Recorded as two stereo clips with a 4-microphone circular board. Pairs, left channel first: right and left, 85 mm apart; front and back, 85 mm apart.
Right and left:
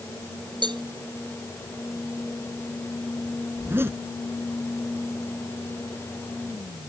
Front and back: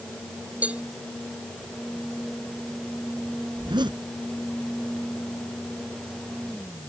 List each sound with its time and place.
0.6 s a cowbell: 105° left
3.5 s a zipper: 150° left